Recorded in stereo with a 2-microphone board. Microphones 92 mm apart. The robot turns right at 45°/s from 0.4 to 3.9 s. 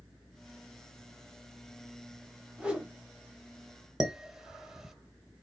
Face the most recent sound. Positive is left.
turn(degrees=-5)  # may be behind; listen again after turning